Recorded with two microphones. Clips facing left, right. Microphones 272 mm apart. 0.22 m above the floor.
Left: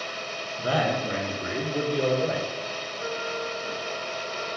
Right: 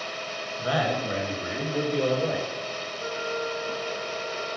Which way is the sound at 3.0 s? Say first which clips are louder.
Right 1 dB; 15° left (ahead or behind).